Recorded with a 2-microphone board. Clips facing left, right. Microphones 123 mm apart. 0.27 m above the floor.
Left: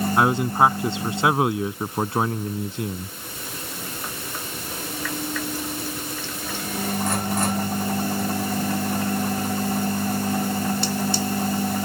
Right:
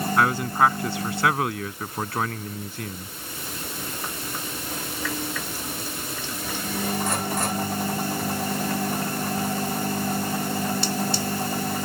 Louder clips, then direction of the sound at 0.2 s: Left 2 dB; 20° left (ahead or behind).